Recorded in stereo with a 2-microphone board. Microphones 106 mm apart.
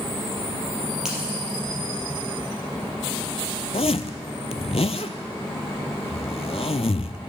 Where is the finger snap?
5° right (ahead or behind), 3.5 m.